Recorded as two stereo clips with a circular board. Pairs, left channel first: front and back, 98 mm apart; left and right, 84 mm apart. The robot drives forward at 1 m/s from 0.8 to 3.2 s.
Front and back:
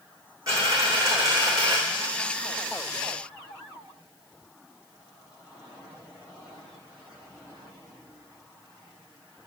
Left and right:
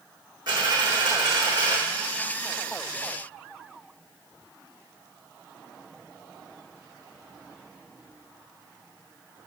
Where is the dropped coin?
125° right, 3.5 m; by 1.8 s 135° right, 4 m.